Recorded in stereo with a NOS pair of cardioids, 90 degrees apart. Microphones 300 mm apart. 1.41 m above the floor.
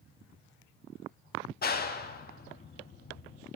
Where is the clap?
30° left, 1.7 m.